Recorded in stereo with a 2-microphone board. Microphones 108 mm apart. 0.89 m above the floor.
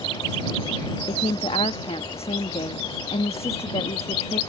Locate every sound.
1.1 s a woman speaking: 65° left (ahead or behind)